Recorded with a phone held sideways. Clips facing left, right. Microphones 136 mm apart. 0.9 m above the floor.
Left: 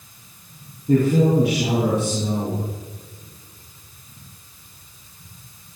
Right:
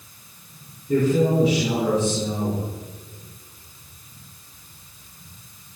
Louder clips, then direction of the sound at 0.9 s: Left 2 dB; 80° left.